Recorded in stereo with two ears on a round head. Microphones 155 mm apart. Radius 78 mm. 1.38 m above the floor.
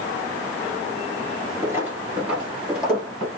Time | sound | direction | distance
1.6 | footsteps | 15° right (ahead or behind) | 1.4 m